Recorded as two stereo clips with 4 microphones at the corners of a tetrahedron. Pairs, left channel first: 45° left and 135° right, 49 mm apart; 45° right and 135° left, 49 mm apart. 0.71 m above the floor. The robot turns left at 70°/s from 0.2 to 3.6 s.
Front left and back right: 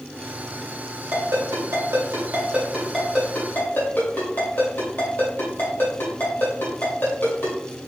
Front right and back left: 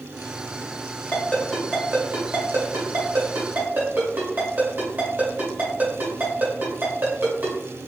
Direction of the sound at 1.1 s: 100° right.